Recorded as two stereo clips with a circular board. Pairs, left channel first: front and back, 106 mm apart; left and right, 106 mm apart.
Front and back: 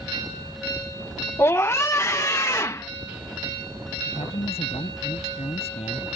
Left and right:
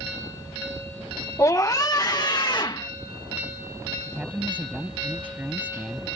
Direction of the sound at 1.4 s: 50° left.